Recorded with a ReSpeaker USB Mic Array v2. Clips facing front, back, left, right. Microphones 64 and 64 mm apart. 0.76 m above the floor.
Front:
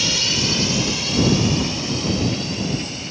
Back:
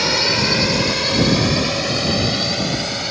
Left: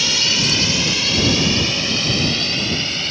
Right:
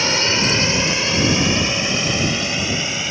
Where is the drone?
145° right; by 3.1 s 165° right.